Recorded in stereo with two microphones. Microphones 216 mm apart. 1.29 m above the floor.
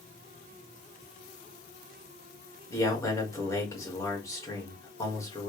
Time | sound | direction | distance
2.7 | a man speaking | 15° left (ahead or behind) | 1.6 m